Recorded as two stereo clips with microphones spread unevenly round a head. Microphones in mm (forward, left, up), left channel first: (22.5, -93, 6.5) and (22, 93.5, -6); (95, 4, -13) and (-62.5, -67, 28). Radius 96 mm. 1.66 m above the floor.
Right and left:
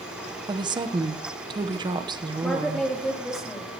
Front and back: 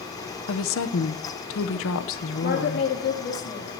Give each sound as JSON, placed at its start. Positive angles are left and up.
{"t": 0.5, "sound": "a woman speaking", "azimuth_deg": 20, "distance_m": 0.9}
{"t": 2.4, "sound": "a woman speaking", "azimuth_deg": 0, "distance_m": 3.0}